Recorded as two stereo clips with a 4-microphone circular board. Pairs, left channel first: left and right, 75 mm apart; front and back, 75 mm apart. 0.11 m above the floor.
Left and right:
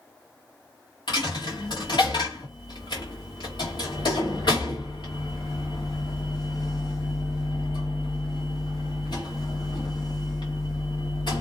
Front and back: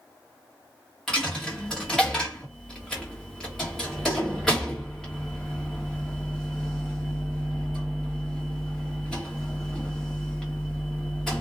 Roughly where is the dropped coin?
Left.